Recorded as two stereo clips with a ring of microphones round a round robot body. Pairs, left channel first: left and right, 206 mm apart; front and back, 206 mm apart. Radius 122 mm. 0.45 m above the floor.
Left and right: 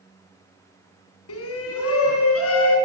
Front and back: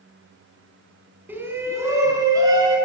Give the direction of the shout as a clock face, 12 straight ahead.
9 o'clock.